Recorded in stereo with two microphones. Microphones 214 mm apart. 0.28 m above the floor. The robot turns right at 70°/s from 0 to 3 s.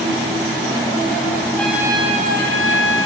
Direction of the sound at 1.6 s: 175° left.